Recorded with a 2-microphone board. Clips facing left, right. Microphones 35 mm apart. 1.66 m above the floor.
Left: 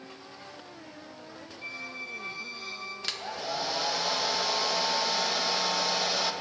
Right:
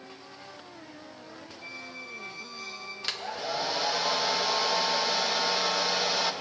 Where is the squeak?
35° left (ahead or behind), 1.3 m.